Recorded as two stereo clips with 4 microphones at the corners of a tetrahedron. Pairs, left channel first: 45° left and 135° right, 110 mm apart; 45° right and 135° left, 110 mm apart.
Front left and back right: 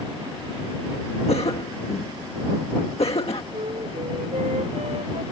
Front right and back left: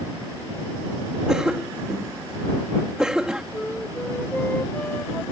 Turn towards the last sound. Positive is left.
turn(degrees=-125)